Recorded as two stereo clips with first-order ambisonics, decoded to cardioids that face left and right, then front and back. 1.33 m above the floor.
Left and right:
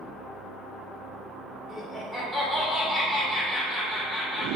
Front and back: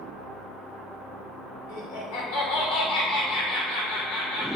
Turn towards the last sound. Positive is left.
turn(degrees=5)